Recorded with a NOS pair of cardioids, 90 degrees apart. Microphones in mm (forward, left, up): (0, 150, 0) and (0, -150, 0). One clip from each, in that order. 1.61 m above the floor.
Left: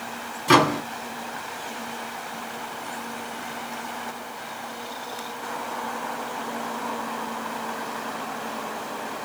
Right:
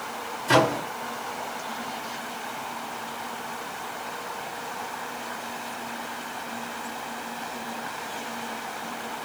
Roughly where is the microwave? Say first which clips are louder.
Left 3 dB; ahead left.